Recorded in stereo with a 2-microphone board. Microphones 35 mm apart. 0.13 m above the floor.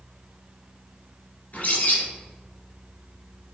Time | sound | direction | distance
1.5 | a bird | 50° left (ahead or behind) | 2.5 m